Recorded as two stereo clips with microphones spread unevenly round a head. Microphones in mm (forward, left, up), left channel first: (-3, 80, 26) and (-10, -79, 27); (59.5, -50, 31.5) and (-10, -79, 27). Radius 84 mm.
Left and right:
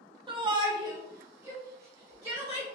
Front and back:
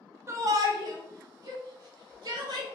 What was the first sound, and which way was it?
A shout, 135° right.